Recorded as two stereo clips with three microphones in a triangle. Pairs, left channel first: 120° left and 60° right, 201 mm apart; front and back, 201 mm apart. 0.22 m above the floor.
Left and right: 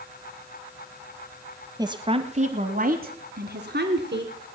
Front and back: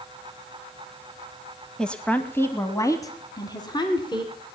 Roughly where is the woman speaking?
Right.